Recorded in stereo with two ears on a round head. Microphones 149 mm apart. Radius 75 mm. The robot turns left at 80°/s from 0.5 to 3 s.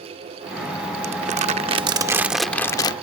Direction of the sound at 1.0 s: 70° right.